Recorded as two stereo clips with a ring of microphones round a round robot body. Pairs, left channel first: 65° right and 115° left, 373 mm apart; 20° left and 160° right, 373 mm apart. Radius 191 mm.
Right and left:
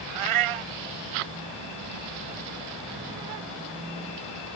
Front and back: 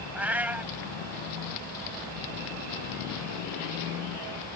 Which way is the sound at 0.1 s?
115° left.